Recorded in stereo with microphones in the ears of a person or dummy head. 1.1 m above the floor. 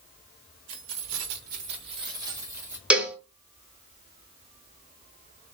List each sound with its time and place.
0.7 s keys jangling: 65° right (ahead or behind), 0.8 m; by 2.8 s 15° right (ahead or behind), 1.9 m
2.9 s a cowbell: 5° right (ahead or behind), 0.7 m